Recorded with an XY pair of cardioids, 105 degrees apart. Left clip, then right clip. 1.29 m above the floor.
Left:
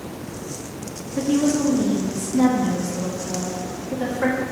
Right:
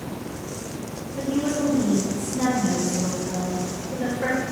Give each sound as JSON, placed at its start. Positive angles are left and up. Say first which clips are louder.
{"t": 1.2, "sound": "a woman speaking", "louder": "left 4 dB", "azimuth_deg": 55, "distance_m": 2.0}